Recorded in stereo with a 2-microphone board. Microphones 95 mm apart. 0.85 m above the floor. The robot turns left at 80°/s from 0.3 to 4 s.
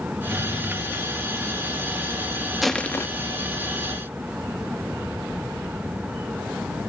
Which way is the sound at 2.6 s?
175° right.